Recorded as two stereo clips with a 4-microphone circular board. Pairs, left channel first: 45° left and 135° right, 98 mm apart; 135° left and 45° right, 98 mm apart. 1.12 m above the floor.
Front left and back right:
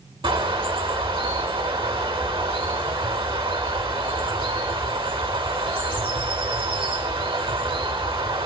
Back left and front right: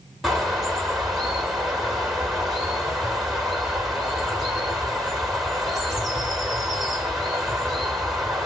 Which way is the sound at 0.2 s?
130° right.